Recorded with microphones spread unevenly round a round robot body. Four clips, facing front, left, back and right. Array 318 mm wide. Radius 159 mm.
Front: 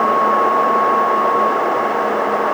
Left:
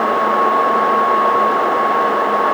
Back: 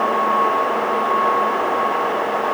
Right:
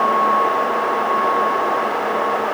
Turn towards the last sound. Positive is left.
No sound to turn to.